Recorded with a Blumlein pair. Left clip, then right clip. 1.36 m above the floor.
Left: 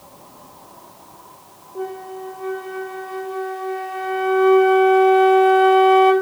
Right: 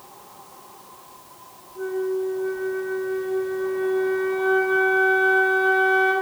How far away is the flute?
About 2 m.